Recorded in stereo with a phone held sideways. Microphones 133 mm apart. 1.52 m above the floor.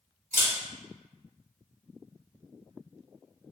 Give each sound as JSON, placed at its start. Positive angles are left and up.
{"t": 0.3, "sound": "a camera shutter", "side_deg": -65, "distance_m": 1.8}